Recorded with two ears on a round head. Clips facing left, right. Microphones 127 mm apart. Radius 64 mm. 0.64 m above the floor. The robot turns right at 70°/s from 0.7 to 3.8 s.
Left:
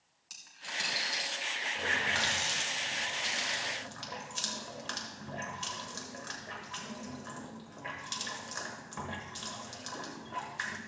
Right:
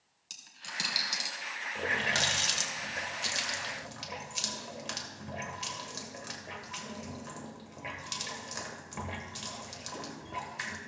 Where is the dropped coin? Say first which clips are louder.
Left 2 dB; 35° right (ahead or behind), 2 m; by 1.3 s 75° right (ahead or behind), 2 m.